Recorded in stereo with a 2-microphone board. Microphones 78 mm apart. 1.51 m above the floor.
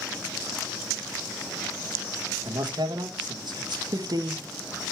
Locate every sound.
2.5 s a man speaking: 70° right (ahead or behind), 1.3 m
3.9 s a woman speaking: 55° right (ahead or behind), 0.8 m